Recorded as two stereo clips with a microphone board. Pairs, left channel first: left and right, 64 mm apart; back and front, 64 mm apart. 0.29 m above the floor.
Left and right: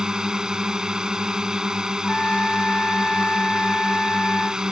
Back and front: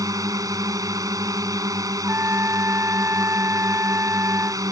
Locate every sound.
0.0 s a drone: 10° right
2.0 s a trumpet: 25° left